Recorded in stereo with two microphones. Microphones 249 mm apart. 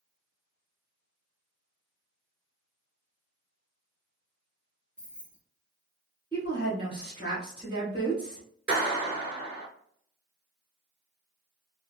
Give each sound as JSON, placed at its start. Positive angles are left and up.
{"t": 5.0, "sound": "keys jangling", "side_deg": 45, "distance_m": 1.0}
{"t": 6.3, "sound": "a woman speaking", "side_deg": -20, "distance_m": 1.2}
{"t": 8.7, "sound": "a clap", "side_deg": -5, "distance_m": 1.2}